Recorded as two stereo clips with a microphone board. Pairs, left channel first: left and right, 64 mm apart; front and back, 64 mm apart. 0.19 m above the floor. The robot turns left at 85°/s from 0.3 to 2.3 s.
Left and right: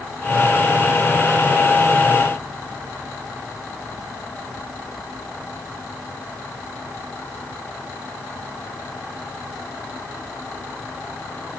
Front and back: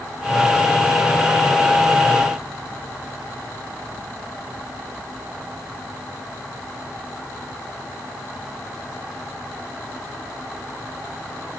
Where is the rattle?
No rattle in this recording.